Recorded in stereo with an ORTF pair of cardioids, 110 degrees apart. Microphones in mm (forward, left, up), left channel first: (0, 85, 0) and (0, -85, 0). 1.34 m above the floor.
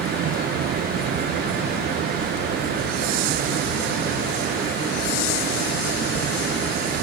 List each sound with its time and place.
0.0 s a fan: 65° right